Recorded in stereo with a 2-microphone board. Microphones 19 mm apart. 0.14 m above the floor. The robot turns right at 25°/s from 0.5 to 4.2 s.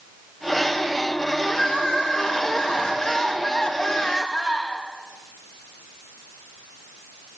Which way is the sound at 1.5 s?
80° left.